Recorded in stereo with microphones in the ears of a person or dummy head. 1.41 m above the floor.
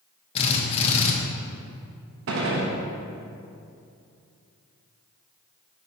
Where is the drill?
35° left (ahead or behind), 1.1 m.